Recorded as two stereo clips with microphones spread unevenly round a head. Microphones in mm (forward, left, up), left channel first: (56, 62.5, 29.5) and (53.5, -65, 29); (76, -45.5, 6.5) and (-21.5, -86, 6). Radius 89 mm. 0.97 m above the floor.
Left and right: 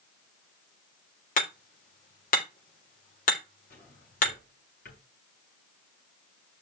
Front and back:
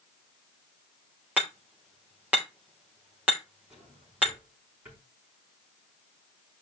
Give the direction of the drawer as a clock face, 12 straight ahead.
8 o'clock.